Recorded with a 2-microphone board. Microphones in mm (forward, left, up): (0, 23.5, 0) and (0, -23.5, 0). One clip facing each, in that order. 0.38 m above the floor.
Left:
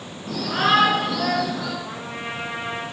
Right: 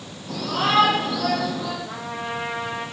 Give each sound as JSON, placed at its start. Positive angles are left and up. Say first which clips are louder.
{"t": 0.3, "sound": "a shout", "louder": "left 3 dB", "side_deg": 75, "distance_m": 5.5}
{"t": 1.8, "sound": "a trumpet", "louder": "right 1 dB", "side_deg": 50, "distance_m": 5.0}